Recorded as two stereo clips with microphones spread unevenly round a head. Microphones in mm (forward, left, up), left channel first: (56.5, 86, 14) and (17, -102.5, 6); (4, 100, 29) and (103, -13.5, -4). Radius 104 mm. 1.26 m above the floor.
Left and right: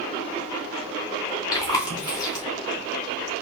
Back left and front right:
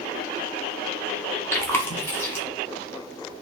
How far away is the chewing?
About 1.0 m.